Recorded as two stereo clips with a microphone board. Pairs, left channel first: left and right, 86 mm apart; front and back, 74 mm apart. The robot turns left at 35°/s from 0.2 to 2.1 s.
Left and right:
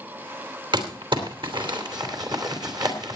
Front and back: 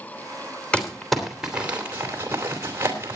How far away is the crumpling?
About 3 m.